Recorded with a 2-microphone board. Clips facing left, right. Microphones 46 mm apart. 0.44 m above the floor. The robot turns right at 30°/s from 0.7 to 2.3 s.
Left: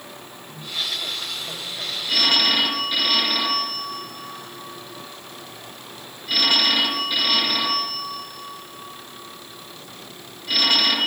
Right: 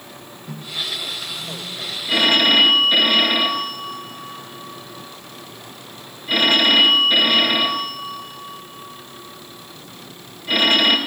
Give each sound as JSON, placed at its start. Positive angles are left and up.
{"t": 0.5, "sound": "a microwave", "side_deg": -75, "distance_m": 4.5}
{"t": 2.1, "sound": "a phone ringing", "side_deg": -25, "distance_m": 5.5}